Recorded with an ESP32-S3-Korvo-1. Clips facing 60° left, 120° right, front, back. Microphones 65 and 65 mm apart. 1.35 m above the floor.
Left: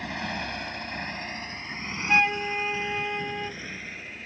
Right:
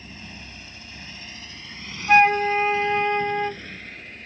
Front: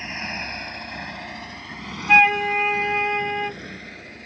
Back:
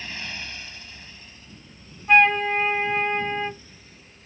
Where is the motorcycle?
65° left; by 4.2 s 25° right.